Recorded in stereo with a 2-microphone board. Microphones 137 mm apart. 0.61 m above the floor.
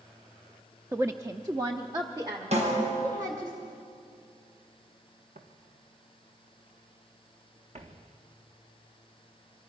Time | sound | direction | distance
0.9 | a woman speaking | 15° right (ahead or behind) | 0.6 m
2.5 | a snare drum | 50° right (ahead or behind) | 5 m
5.3 | footsteps | 80° right | 2.5 m